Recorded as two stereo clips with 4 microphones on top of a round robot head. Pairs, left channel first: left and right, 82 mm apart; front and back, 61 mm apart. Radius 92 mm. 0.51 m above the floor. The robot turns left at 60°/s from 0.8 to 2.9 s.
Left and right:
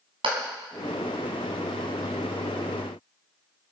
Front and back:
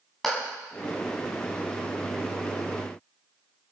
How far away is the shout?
I don't hear a shout.